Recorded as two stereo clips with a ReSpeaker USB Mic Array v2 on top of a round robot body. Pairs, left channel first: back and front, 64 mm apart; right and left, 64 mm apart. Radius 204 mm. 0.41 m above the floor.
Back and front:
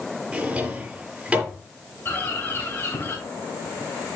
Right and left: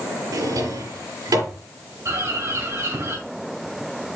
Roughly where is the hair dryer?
No hair dryer in this recording.